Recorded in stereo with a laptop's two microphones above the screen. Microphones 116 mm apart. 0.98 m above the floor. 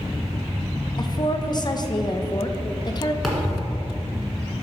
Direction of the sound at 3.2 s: Centre (ahead or behind).